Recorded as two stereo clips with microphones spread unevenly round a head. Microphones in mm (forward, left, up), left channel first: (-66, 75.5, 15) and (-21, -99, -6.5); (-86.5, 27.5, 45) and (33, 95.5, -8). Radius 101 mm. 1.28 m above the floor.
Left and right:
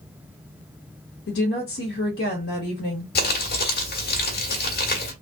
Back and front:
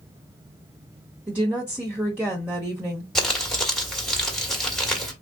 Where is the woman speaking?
110° left, 1.4 m.